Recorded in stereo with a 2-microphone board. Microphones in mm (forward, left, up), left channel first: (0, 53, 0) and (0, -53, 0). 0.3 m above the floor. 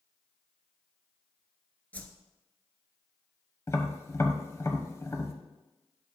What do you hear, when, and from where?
1.9 s a whoosh: 15° left (ahead or behind), 0.8 m
3.7 s tapping: 25° left (ahead or behind), 1.0 m